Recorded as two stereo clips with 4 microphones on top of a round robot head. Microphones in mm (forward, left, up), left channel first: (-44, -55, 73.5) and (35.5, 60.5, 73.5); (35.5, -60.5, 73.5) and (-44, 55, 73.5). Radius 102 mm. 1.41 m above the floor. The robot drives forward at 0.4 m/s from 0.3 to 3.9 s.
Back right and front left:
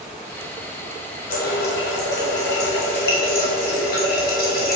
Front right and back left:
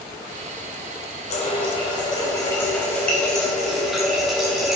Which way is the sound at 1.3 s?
95° right.